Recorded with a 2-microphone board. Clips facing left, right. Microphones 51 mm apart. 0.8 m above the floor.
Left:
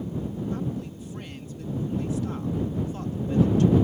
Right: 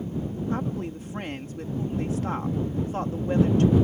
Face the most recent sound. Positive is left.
turn(degrees=-50)  # may be behind; listen again after turning